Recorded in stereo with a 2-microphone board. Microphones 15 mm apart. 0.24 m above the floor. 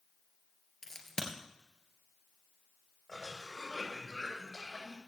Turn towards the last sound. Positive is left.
turn(degrees=15)  # may be behind; listen again after turning